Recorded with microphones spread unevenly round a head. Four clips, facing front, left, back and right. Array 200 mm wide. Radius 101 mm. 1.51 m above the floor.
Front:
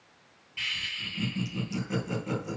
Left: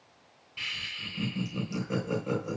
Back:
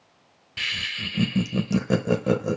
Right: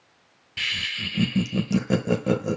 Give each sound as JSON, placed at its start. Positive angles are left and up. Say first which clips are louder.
{"t": 0.6, "sound": "laughter", "louder": "right 8 dB, back 6 dB", "azimuth_deg": -135, "distance_m": 1.0}